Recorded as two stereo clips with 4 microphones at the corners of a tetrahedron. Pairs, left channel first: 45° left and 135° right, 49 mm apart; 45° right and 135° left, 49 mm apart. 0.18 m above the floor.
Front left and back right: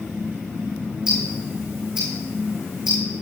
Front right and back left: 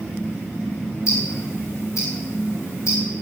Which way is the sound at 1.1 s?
65° right.